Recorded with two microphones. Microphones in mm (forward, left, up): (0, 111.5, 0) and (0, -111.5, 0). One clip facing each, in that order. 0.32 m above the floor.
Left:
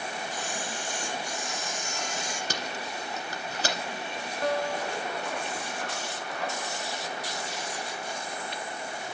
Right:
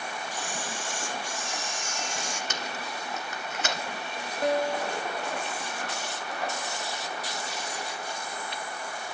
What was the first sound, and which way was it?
A camera shutter, 70° right (ahead or behind).